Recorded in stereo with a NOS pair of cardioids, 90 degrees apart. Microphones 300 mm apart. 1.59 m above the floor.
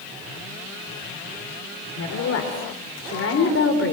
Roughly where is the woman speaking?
Ahead left.